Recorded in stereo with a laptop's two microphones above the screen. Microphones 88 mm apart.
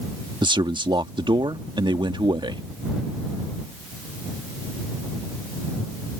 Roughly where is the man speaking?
Right.